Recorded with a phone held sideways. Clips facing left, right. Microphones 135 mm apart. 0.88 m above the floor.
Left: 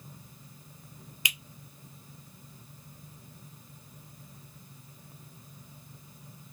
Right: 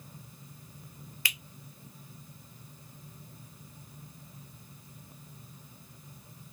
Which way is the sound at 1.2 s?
20° left (ahead or behind).